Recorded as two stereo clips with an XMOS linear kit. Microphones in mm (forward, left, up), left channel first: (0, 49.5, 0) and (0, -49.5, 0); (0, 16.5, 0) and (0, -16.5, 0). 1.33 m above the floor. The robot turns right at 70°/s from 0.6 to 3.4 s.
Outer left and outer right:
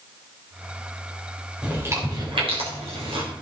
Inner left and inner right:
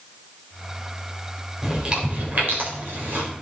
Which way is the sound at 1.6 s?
10° right (ahead or behind).